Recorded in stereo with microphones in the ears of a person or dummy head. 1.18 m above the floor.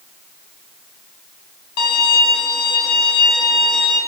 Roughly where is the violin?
Left.